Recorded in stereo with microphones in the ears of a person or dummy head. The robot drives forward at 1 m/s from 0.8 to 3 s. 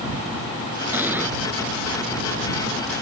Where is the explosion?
Centre (ahead or behind).